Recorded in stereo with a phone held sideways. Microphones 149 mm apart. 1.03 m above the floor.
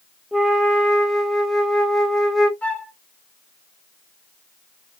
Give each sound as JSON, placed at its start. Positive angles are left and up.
{"t": 0.3, "sound": "a flute", "side_deg": 0, "distance_m": 0.9}
{"t": 2.6, "sound": "a flute", "side_deg": 10, "distance_m": 1.0}